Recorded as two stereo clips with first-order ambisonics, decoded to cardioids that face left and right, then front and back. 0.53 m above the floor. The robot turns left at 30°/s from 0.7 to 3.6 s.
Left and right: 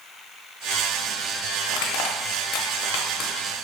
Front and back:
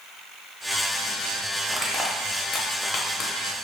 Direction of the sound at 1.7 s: 95° left.